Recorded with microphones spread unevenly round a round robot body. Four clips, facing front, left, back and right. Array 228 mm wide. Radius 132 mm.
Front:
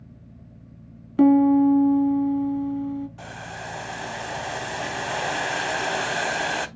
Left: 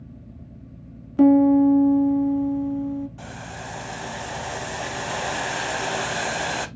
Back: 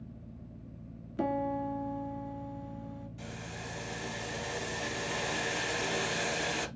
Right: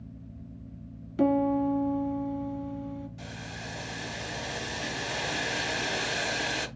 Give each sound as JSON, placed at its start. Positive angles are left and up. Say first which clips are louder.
{"t": 1.2, "sound": "a piano", "louder": "left 10 dB, front 17 dB", "azimuth_deg": 25, "distance_m": 1.2}
{"t": 3.2, "sound": "boiling", "louder": "left 5 dB, front 7 dB", "azimuth_deg": 25, "distance_m": 0.5}